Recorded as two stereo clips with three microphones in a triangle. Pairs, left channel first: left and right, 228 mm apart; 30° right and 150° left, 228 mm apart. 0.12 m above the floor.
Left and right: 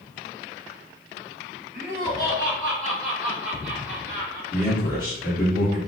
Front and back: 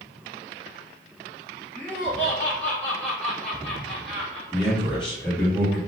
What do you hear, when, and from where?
1.7 s laughter: 50° left, 1.8 m; by 4.4 s 105° right, 1.6 m
4.5 s a man speaking: 55° left, 1.8 m